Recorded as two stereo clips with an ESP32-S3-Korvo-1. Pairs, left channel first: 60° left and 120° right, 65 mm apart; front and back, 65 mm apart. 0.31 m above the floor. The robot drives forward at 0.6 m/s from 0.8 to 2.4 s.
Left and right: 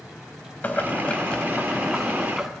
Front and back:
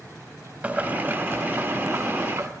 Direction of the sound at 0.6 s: 120° left.